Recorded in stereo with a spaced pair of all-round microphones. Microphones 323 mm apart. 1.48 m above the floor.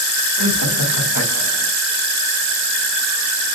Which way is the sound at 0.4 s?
80° left.